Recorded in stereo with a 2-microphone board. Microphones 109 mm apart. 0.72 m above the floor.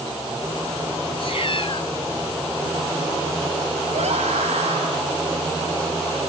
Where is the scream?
75° right (ahead or behind), 5 m.